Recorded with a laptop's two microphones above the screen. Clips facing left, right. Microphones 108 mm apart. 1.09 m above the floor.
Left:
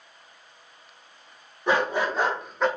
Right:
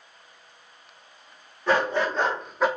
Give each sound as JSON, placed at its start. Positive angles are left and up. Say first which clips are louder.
{"t": 1.7, "sound": "a dog barking", "louder": "right 1 dB", "side_deg": 20, "distance_m": 1.2}